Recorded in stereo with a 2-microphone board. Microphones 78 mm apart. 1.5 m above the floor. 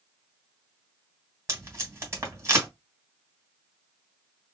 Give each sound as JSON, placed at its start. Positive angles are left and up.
{"t": 1.5, "sound": "tape being pulled", "side_deg": -35, "distance_m": 1.7}